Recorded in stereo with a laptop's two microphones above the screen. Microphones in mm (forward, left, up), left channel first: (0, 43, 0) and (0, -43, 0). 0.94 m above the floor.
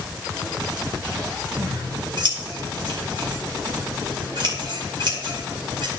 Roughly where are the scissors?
Right.